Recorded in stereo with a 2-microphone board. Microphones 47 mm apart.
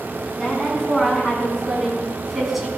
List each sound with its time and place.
0.4 s a woman speaking: 10° left (ahead or behind), 6.5 m; by 2.7 s 5° right (ahead or behind), 5.5 m